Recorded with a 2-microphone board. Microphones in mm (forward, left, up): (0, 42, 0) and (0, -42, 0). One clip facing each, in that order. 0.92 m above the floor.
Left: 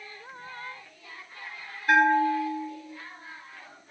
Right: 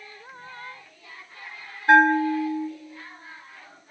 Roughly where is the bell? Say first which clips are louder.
Right 4 dB; right.